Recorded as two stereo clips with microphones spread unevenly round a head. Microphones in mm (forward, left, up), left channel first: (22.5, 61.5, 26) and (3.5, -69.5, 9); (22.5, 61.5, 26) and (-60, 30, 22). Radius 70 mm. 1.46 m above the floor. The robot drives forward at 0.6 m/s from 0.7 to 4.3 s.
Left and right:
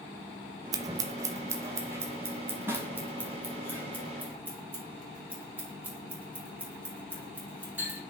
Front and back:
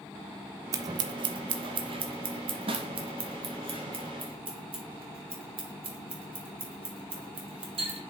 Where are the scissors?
150° right, 0.5 m; by 8.0 s 175° right, 2.5 m.